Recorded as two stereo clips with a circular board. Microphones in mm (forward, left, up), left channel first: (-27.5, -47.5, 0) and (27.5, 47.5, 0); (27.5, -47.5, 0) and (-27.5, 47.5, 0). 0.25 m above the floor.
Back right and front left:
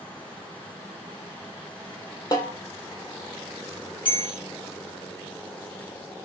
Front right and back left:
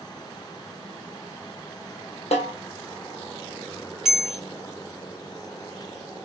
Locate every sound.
2.3 s a snare drum: 65° right, 1.2 m
4.0 s a bell: 155° right, 1.8 m